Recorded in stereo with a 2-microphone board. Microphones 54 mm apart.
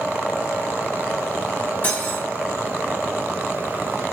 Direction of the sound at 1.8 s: 35° left (ahead or behind).